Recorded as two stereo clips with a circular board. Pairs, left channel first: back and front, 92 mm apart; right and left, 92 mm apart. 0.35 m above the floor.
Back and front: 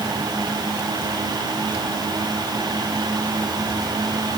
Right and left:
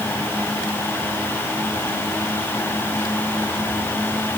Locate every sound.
Only background noise.